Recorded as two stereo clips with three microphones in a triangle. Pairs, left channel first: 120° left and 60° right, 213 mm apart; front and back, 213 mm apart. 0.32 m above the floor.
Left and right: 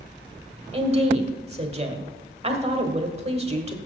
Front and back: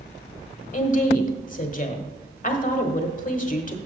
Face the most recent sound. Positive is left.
turn(degrees=-20)